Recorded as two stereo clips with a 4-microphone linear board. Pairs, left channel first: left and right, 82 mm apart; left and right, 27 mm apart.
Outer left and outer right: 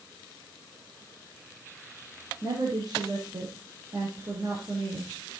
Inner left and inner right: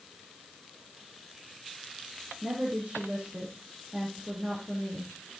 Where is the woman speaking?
50° right (ahead or behind), 6.5 m.